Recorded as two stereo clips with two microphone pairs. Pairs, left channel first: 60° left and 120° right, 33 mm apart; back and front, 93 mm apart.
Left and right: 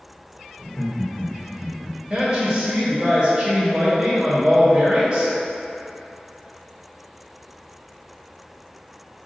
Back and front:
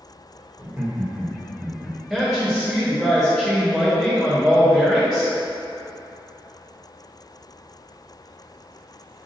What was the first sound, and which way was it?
Laughter, 40° left.